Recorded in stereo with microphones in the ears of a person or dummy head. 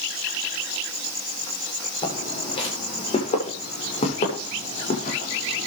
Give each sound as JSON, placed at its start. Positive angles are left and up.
{"t": 2.0, "sound": "footsteps", "side_deg": 30, "distance_m": 7.5}